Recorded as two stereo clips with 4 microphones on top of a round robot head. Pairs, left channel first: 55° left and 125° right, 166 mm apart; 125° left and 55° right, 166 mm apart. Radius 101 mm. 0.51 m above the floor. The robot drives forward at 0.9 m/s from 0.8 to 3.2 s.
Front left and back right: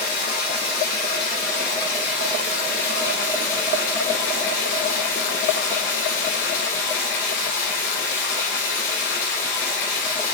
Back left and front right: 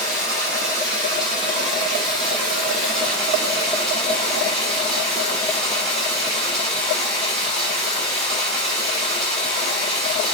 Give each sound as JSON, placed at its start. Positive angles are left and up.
{"t": 0.0, "sound": "running water", "azimuth_deg": 25, "distance_m": 8.0}